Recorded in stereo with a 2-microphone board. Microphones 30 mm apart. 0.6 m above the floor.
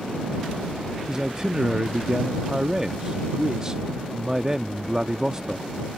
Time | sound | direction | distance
1.1 | a man speaking | 20° right (ahead or behind) | ?